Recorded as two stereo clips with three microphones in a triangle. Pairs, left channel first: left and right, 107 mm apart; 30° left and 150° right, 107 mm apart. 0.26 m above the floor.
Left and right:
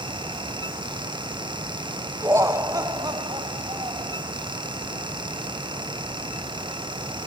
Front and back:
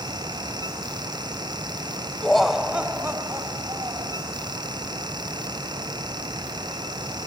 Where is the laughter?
45° right, 1.1 m; by 4.2 s 115° right, 1.5 m.